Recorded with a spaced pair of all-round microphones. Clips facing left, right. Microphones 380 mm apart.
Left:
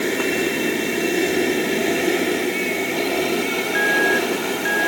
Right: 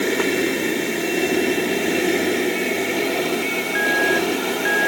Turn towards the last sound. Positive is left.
No sound to turn to.